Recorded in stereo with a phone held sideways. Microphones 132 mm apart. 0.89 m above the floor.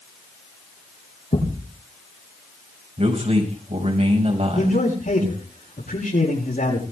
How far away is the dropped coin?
No dropped coin in this recording.